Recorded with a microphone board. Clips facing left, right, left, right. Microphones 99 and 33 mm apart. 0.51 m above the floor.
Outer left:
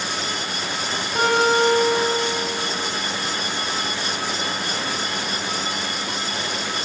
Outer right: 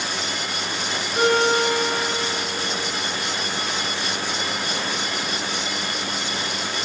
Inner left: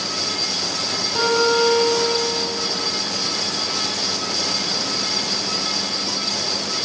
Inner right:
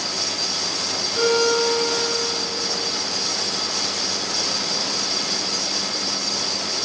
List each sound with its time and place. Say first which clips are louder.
1.1 s a guitar: outer left 1 dB, inner left 1 dB; 75° left (ahead or behind), 3 m